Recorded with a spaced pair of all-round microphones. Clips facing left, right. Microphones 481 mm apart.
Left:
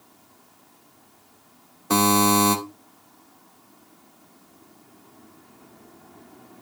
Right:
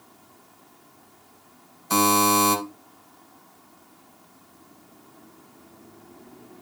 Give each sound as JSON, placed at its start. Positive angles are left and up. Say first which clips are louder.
{"t": 1.9, "sound": "a buzzer", "louder": "left 2 dB", "side_deg": 80, "distance_m": 2.0}